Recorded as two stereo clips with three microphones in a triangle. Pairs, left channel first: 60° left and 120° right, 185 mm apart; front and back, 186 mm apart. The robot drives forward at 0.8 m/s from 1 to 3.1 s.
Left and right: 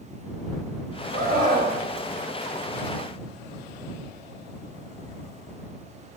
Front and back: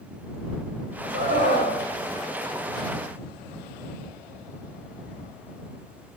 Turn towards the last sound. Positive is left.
turn(degrees=-165)